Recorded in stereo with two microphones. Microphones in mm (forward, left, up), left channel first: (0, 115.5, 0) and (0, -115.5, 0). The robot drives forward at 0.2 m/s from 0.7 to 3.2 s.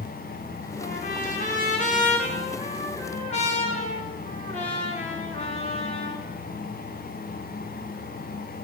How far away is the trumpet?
About 1.7 m.